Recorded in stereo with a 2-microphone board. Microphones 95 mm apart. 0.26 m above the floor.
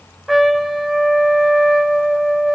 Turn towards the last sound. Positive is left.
turn(degrees=0)  # may be behind; listen again after turning